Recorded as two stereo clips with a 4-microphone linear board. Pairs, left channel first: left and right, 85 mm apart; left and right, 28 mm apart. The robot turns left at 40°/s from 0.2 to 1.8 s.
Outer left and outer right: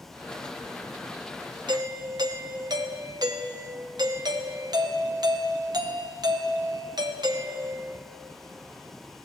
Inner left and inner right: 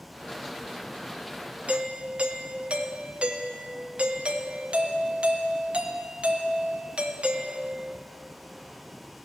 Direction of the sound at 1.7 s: 60° right (ahead or behind).